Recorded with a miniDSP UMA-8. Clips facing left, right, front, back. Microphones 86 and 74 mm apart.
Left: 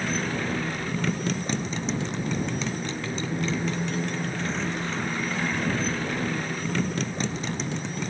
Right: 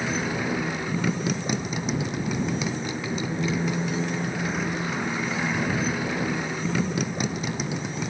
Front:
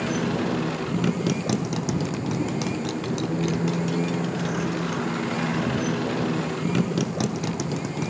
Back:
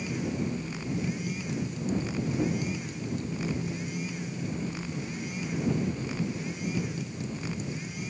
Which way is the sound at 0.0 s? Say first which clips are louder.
Right 1 dB, front 7 dB; 10° right.